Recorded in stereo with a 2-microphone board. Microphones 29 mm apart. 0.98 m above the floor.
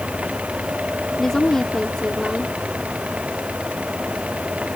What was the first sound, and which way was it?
A woman speaking, 15° left (ahead or behind).